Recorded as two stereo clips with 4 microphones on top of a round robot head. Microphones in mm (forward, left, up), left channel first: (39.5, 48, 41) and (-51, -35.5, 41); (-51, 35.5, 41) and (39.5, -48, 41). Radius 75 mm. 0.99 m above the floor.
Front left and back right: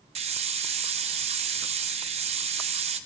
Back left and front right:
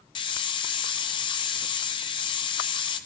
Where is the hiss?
175° right, 0.5 m.